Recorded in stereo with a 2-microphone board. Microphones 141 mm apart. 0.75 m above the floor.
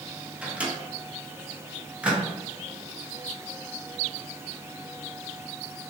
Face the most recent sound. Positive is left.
turn(degrees=-10)  # may be behind; listen again after turning